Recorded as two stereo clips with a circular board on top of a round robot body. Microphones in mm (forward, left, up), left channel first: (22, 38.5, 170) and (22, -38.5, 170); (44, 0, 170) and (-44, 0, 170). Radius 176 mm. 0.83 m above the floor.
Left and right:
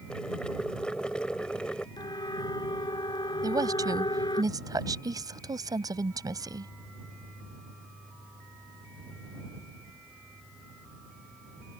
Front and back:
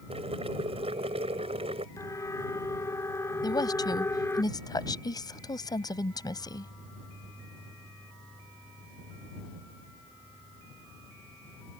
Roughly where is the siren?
Ahead left.